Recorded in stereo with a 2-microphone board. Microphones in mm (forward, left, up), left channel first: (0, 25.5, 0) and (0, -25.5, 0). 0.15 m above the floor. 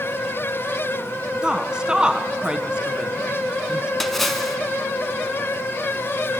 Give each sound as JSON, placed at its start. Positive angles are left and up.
{"t": 1.4, "sound": "a woman speaking", "side_deg": -15, "distance_m": 1.3}
{"t": 4.0, "sound": "a splash", "side_deg": 5, "distance_m": 1.4}